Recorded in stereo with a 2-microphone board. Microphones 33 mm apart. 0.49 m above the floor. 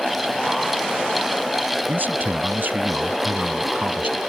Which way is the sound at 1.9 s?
65° right (ahead or behind).